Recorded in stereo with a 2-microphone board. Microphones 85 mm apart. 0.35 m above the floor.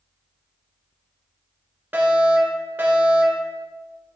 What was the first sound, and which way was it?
A fire alarm, 20° right (ahead or behind).